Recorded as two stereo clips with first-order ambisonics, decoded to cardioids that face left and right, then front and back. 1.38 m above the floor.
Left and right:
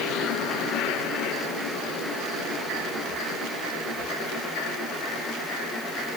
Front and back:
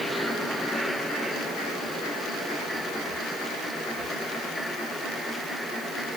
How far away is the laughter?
I don't hear laughter.